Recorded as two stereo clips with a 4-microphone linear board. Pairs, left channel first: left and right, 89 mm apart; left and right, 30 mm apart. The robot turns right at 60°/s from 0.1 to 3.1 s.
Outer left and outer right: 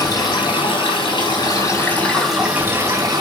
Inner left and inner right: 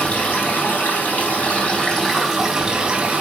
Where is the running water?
50° left, 4 m; by 3.2 s 130° right, 4 m.